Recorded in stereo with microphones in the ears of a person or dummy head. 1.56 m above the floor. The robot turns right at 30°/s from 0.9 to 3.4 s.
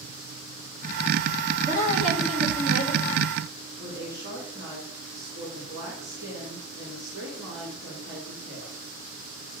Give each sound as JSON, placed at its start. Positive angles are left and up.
{"t": 1.6, "sound": "a woman speaking", "azimuth_deg": -150, "distance_m": 3.0}
{"t": 3.8, "sound": "a woman speaking", "side_deg": -70, "distance_m": 4.0}